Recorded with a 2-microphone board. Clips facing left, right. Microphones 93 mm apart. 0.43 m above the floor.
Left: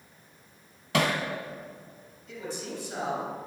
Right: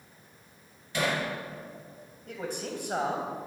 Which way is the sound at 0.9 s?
85° left.